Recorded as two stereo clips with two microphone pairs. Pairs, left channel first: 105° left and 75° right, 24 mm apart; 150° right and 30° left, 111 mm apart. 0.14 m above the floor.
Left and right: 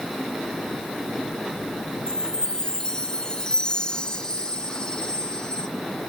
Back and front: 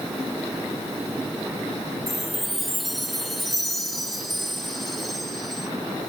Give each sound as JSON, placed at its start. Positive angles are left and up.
{"t": 2.1, "sound": "a chime", "azimuth_deg": 120, "distance_m": 0.9}